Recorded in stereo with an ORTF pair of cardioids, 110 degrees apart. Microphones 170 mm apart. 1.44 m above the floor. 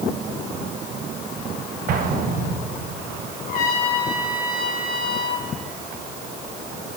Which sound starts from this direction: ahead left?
A trumpet, at 3.5 s.